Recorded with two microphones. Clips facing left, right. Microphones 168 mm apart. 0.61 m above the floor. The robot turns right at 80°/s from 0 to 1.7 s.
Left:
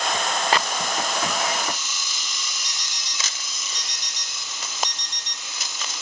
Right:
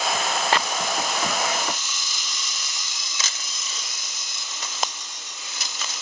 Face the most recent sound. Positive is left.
turn(degrees=80)